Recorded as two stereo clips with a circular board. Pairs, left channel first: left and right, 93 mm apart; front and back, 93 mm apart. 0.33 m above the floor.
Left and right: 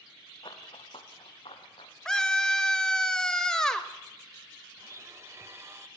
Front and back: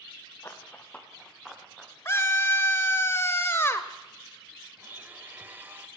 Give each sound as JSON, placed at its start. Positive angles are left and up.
{"t": 0.4, "sound": "running footsteps", "azimuth_deg": 60, "distance_m": 3.5}
{"t": 2.0, "sound": "a scream", "azimuth_deg": 15, "distance_m": 1.0}
{"t": 4.8, "sound": "a blender", "azimuth_deg": -125, "distance_m": 1.0}